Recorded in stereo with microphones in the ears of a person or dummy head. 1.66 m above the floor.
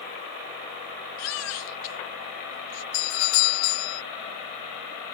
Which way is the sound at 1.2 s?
80° left.